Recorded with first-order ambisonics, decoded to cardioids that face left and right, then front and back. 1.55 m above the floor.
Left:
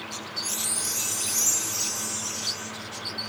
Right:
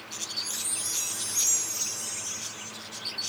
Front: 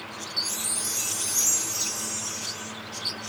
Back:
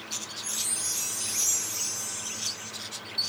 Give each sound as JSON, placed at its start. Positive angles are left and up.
{"t": 0.4, "sound": "a chime", "azimuth_deg": 55, "distance_m": 2.0}